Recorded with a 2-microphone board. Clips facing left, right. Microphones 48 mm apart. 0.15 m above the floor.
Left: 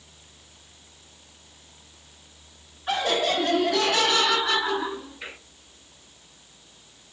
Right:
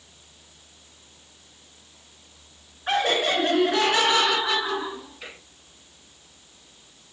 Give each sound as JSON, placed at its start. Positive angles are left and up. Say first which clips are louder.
{"t": 2.9, "sound": "laughter", "louder": "right 2 dB", "side_deg": -50, "distance_m": 2.0}